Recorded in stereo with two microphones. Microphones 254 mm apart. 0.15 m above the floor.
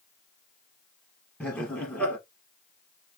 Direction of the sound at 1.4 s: 5° left (ahead or behind).